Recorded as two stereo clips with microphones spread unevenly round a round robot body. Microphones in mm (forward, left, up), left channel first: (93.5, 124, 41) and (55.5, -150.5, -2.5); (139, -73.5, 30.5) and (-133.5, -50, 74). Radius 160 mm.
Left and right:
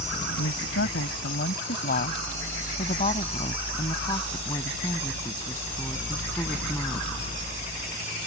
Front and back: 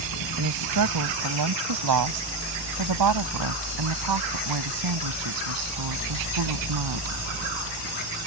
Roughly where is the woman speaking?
Behind left.